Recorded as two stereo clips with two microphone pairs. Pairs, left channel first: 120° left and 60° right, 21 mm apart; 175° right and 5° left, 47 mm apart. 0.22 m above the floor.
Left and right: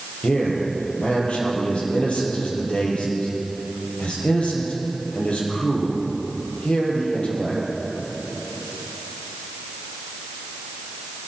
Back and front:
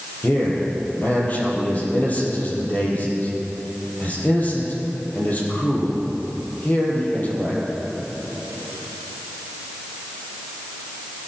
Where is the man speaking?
135° left, 5.5 m.